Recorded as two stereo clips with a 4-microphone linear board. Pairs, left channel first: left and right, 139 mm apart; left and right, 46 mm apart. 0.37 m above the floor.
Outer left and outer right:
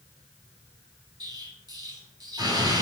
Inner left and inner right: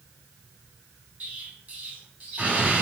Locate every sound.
1.2 s an explosion: 30° right (ahead or behind), 2 m